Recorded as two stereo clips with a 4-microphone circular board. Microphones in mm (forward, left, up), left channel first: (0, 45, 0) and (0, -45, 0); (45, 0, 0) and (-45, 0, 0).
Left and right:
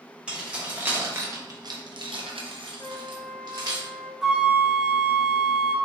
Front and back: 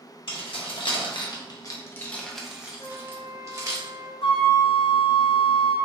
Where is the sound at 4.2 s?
5° right, 0.5 m.